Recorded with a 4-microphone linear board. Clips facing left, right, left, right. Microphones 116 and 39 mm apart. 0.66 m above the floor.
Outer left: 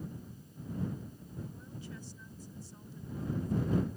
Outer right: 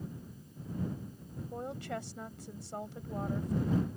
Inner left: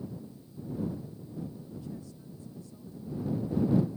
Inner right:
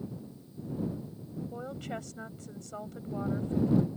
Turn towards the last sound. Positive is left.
turn(degrees=-75)  # may be behind; listen again after turning